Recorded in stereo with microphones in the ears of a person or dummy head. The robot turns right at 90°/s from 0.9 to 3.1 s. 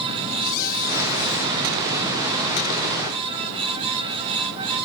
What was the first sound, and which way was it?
A squeak, 55° left.